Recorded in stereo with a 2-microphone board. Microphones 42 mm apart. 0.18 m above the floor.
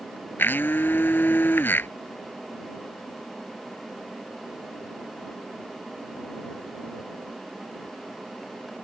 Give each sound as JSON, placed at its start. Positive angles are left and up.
{"t": 0.4, "sound": "a blender", "side_deg": 50}